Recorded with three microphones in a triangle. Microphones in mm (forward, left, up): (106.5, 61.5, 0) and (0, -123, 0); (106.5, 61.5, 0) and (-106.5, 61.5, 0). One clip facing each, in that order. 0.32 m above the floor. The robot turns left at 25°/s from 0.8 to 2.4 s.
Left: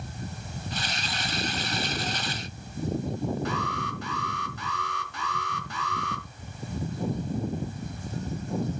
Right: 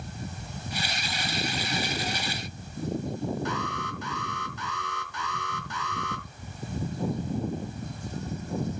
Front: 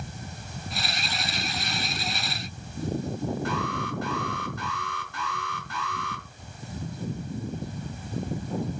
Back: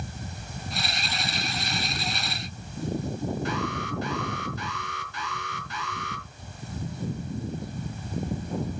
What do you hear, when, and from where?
3.5 s an alarm: 35° left, 4 m